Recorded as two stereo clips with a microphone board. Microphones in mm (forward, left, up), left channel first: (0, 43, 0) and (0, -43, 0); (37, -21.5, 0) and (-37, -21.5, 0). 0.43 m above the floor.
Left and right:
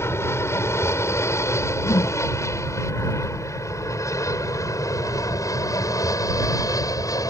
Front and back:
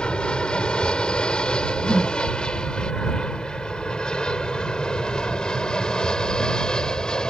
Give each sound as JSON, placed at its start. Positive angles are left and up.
{"t": 0.0, "sound": "an aircraft", "azimuth_deg": 65}
{"t": 1.8, "sound": "a whoosh", "azimuth_deg": 95}